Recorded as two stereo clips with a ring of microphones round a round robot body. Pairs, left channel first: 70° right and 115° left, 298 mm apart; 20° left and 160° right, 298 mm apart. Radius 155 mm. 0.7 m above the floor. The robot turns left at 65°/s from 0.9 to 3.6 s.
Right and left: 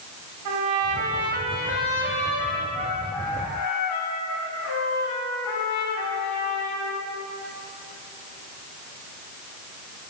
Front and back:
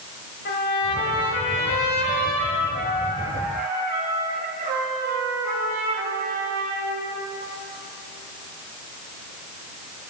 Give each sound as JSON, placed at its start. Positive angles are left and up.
{"t": 0.5, "sound": "a trumpet", "azimuth_deg": 80, "distance_m": 3.0}